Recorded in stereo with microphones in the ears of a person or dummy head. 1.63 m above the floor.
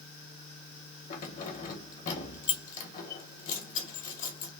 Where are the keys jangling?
45° left (ahead or behind), 1.2 m.